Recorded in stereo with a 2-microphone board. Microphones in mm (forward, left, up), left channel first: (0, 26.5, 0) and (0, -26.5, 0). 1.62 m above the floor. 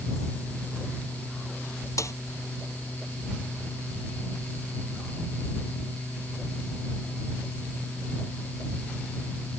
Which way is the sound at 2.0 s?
85° left.